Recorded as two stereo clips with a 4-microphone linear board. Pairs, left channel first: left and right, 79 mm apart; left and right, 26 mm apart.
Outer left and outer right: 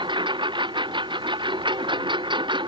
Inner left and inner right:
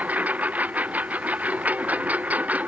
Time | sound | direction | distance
0.0 | a lawn mower | 90° right | ?